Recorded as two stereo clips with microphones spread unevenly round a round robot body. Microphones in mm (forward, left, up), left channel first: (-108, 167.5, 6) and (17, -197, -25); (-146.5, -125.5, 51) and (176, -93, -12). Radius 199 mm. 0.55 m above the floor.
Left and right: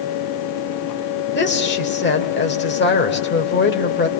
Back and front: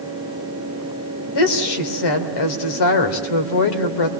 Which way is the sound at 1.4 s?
175° left.